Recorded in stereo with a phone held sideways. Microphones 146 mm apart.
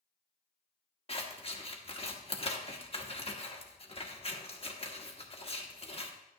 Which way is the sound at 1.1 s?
40° left (ahead or behind).